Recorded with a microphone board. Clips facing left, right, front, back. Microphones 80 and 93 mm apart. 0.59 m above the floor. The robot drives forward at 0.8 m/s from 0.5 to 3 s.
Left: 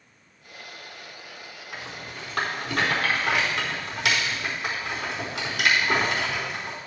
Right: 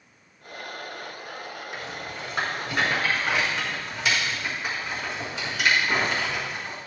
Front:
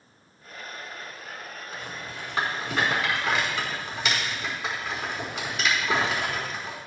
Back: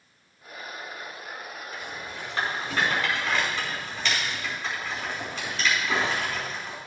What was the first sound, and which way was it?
A rattle, 70° left.